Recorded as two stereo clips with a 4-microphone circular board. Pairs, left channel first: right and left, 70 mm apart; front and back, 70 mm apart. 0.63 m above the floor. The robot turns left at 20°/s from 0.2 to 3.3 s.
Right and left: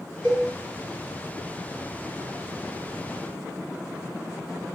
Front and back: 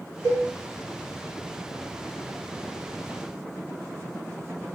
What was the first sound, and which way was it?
A cowbell, 20° right.